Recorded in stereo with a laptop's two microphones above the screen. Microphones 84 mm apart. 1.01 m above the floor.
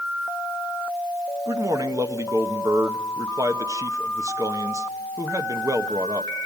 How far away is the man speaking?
About 0.9 m.